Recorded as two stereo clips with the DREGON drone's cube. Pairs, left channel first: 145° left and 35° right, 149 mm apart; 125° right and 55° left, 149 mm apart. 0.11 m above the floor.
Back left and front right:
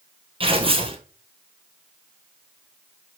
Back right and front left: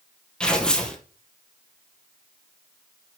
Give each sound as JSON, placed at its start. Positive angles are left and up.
{"t": 0.4, "sound": "tearing paper", "azimuth_deg": -45, "distance_m": 1.3}